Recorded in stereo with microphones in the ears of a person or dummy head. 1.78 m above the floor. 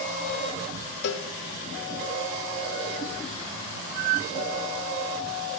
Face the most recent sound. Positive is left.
turn(degrees=65)  # may be behind; listen again after turning